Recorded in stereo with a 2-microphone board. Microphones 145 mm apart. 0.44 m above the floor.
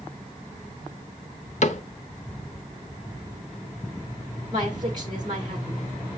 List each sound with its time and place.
1.6 s a cupboard door: 55° left (ahead or behind), 0.6 m
4.5 s a woman speaking: 30° right (ahead or behind), 1.3 m